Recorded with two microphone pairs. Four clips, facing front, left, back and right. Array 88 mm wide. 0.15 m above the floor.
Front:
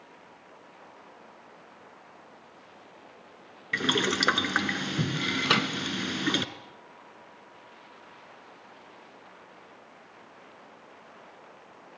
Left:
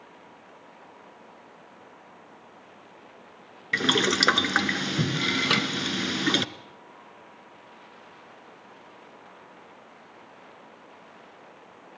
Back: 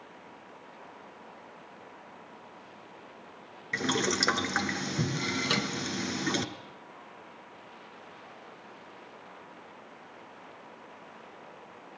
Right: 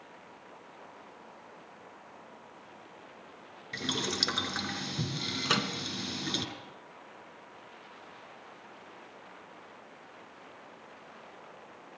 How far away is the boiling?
About 1.4 m.